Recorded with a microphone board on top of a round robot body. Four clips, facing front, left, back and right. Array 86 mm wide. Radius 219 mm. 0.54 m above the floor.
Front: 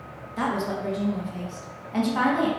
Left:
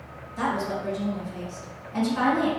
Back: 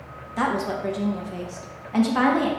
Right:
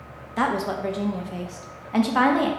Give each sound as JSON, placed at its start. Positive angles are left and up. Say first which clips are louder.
{"t": 0.4, "sound": "a woman speaking", "louder": "right 3 dB, back 2 dB", "azimuth_deg": -110, "distance_m": 1.1}